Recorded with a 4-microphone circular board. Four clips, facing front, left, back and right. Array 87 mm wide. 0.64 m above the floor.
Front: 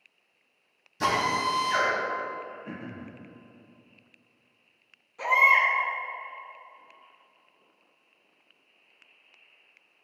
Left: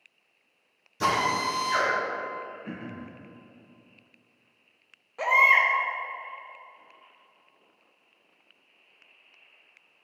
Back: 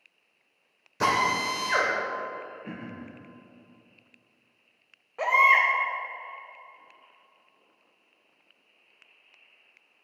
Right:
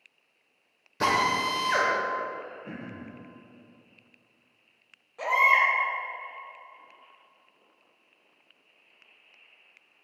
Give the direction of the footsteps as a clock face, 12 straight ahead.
I don't hear footsteps.